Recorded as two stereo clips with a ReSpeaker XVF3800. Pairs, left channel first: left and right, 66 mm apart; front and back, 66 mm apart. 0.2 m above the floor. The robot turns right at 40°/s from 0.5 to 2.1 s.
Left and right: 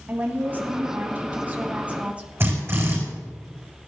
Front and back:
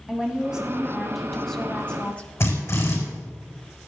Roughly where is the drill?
Ahead right.